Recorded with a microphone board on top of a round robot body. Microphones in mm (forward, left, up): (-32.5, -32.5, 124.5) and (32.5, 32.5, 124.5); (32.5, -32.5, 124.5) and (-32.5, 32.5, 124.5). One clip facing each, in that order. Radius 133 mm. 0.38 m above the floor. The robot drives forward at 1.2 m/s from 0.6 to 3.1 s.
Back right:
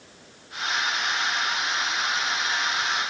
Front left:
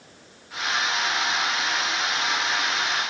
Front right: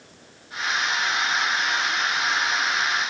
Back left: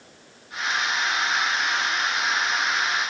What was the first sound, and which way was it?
Only background noise.